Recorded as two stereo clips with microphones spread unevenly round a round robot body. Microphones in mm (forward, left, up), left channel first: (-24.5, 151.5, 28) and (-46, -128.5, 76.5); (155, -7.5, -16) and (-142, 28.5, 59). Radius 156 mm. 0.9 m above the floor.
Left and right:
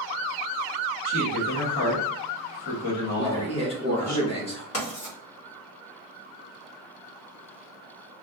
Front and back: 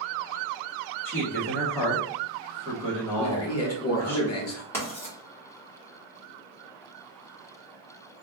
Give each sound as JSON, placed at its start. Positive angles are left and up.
{"t": 1.1, "sound": "a man speaking", "azimuth_deg": 70, "distance_m": 1.3}
{"t": 3.2, "sound": "a man speaking", "azimuth_deg": 20, "distance_m": 1.9}
{"t": 4.7, "sound": "writing", "azimuth_deg": 70, "distance_m": 2.0}